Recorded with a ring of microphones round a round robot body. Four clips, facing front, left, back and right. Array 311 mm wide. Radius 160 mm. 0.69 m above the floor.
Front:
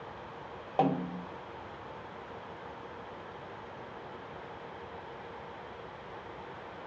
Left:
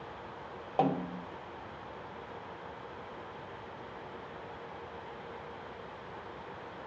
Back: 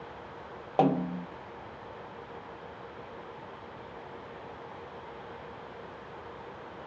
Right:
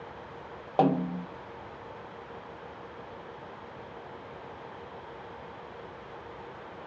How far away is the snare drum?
About 0.5 m.